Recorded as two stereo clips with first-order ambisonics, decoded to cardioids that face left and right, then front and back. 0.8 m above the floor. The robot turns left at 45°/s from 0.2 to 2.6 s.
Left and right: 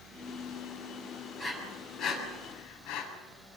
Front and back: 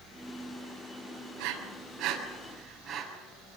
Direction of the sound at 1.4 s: 165° left.